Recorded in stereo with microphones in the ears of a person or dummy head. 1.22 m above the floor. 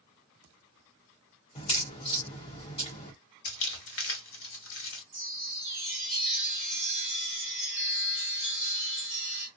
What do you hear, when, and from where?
1.6 s a crack: 35° left (ahead or behind), 0.9 m
3.5 s crumpling: 70° left (ahead or behind), 1.5 m
5.1 s a chime: centre (ahead or behind), 1.6 m